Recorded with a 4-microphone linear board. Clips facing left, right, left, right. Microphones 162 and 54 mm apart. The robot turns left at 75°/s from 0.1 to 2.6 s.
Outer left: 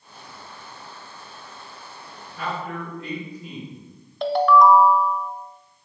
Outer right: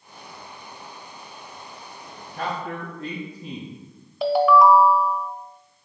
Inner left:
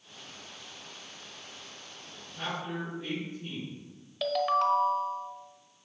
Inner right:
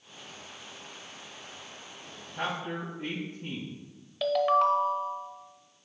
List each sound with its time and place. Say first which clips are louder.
2.4 s a man speaking: outer right 1 dB, inner right 2 dB; 55° right (ahead or behind), 1.6 m; by 3.7 s 45° right (ahead or behind), 1.6 m
4.2 s a ringtone: even, inner right 3 dB; 5° right (ahead or behind), 0.5 m